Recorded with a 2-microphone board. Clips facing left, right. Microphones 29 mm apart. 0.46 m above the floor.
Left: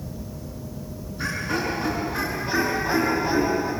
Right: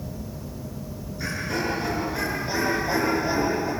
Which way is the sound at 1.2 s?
65° left (ahead or behind).